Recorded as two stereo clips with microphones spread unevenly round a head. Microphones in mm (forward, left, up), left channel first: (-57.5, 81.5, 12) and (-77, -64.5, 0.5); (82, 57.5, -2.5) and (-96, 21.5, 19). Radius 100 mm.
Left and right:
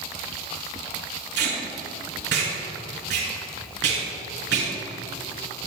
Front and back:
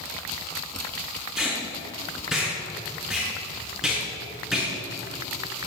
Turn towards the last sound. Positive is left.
turn(degrees=-80)